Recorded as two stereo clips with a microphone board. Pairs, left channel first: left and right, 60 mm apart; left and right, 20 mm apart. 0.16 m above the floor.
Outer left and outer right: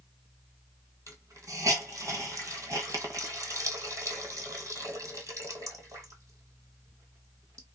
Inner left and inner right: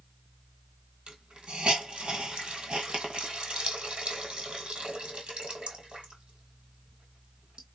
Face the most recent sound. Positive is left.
turn(degrees=-65)  # may be behind; listen again after turning